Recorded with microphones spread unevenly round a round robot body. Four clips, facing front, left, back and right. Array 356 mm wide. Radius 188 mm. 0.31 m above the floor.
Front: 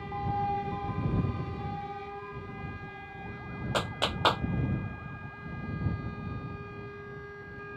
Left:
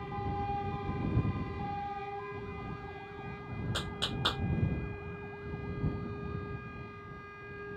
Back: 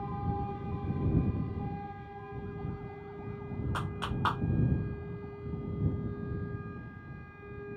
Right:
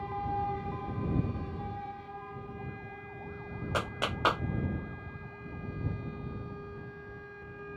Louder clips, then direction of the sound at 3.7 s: Right 8 dB, front 7 dB; 30° right.